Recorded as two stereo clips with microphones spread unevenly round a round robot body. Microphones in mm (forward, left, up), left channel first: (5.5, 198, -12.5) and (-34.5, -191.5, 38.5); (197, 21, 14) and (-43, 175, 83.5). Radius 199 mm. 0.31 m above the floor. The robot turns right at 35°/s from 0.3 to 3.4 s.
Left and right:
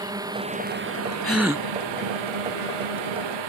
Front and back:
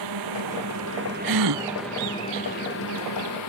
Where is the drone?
175° right; by 3.5 s 65° right.